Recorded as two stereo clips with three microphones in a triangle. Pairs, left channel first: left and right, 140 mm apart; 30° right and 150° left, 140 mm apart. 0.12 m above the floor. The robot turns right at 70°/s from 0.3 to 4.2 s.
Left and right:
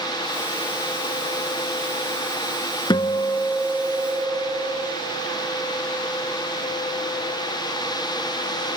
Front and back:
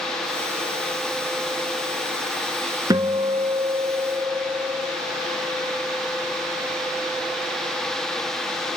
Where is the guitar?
110° left, 0.5 m; by 5.0 s 160° right, 0.5 m.